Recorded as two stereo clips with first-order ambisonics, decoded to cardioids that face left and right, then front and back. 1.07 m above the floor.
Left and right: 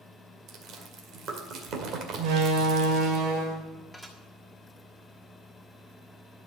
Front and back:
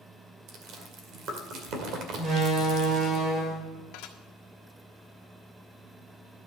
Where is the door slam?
115° right, 3 m.